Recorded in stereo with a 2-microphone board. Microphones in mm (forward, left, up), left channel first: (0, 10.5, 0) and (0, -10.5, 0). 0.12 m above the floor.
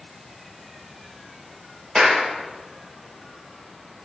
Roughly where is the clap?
Right.